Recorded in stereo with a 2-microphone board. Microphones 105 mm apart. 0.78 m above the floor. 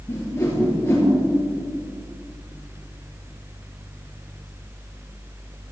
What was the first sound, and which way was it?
A whoosh, 25° left (ahead or behind).